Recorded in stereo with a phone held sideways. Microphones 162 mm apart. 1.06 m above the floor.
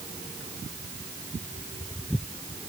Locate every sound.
Only background noise.